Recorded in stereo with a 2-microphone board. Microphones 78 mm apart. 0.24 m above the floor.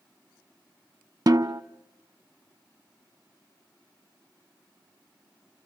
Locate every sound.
1.3 s a snare drum: 55° right (ahead or behind), 0.7 m